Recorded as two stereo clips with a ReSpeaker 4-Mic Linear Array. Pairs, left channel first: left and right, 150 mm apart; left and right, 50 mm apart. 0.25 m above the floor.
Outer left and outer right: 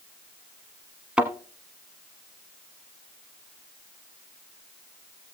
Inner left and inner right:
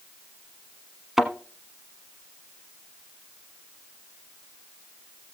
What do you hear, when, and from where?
1.2 s a thud: 5° right (ahead or behind), 1.0 m